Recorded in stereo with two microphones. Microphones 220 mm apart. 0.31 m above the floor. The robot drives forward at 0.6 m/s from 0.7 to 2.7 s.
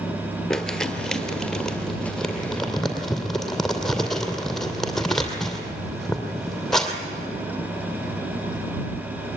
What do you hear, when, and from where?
0.5 s crumpling: centre (ahead or behind), 1.2 m